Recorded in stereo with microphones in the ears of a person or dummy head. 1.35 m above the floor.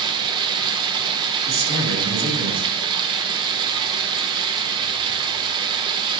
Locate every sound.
0.0 s running water: 20° right (ahead or behind), 0.8 m
1.5 s a man speaking: 75° right (ahead or behind), 4 m